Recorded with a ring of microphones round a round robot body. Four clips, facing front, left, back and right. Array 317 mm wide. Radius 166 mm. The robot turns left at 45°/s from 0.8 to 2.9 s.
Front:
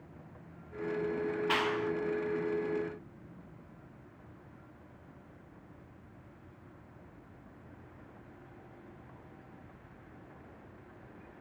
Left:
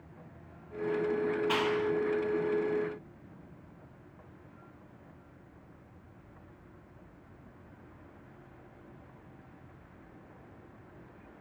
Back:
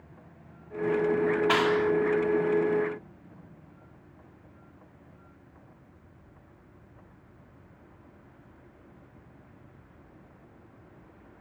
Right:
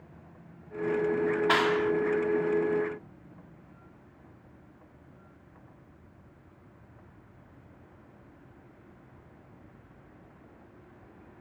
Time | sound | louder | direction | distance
1.5 | a clap | right 5 dB, back 6 dB | 130° right | 1.4 m